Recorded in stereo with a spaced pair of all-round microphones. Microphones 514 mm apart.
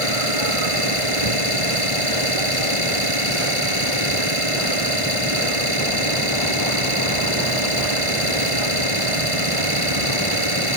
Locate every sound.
0.0 s an engine running: 80° right